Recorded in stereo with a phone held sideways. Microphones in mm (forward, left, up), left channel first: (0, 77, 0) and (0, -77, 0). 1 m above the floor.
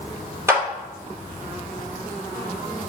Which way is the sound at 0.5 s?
15° right (ahead or behind).